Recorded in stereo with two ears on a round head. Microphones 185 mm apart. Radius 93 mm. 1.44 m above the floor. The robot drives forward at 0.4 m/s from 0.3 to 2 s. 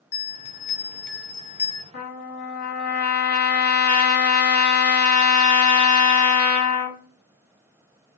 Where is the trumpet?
55° left (ahead or behind), 1.4 m; by 7.0 s 50° left (ahead or behind), 1.5 m.